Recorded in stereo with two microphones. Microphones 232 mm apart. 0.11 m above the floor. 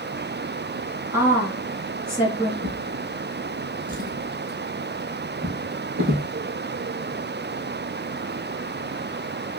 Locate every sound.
1.1 s a woman speaking: 15° right (ahead or behind), 1.7 m
2.6 s a drawer: 60° right (ahead or behind), 1.9 m